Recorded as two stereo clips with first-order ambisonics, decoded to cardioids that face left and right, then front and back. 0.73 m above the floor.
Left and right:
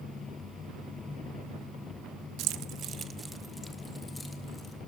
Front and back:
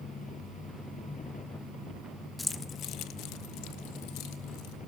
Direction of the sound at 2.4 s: 80° right.